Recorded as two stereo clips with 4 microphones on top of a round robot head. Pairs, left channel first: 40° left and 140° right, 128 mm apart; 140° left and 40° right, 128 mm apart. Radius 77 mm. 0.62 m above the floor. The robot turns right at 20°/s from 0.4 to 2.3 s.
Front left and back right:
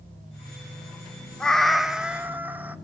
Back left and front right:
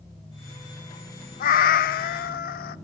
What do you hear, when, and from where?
1.4 s a cat meowing: 125° left, 0.6 m; by 2.8 s 140° left, 0.6 m